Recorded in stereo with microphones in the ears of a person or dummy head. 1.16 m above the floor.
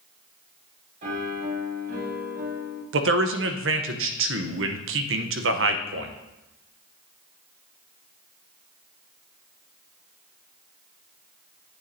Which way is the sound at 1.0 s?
50° right (ahead or behind).